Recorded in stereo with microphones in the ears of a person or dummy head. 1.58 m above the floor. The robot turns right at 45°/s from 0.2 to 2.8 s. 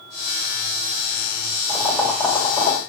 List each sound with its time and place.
1.7 s boiling: 10° right, 2 m; by 2.8 s 40° left, 2 m